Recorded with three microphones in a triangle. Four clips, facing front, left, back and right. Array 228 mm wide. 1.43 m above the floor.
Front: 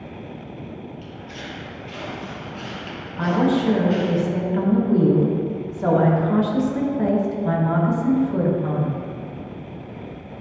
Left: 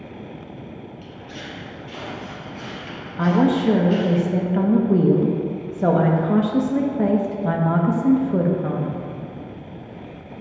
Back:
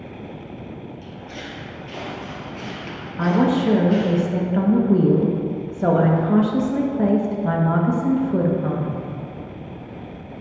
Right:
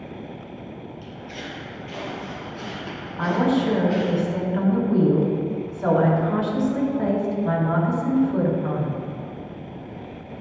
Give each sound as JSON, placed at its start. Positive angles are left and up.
{"t": 1.0, "sound": "footsteps", "azimuth_deg": -165, "distance_m": 2.5}
{"t": 3.2, "sound": "a woman speaking", "azimuth_deg": 115, "distance_m": 1.4}